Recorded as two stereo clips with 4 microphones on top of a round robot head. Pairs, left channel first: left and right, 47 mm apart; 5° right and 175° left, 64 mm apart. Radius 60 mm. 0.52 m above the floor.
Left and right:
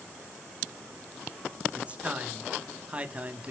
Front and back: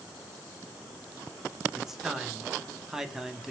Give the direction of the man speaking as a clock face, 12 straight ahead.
4 o'clock.